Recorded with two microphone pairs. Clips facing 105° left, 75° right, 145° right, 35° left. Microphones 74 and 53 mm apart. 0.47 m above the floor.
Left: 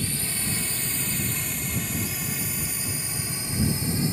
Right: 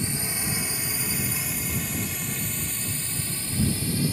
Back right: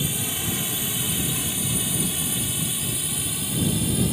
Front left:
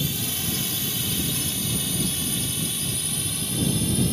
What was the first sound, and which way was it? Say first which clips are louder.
A drone: right 1 dB, back right 1 dB; 100° right.